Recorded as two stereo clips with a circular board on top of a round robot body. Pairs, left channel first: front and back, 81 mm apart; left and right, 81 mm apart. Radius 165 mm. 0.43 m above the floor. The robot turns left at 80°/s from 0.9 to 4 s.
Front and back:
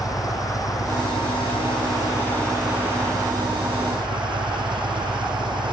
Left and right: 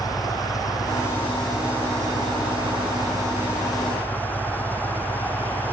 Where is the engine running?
45° left; by 5.7 s 160° left.